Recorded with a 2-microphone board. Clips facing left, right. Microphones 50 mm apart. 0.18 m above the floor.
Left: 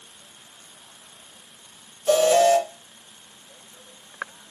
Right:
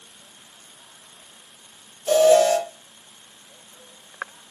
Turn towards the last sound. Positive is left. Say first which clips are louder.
# right 2 dB
turn(degrees=5)  # may be behind; listen again after turning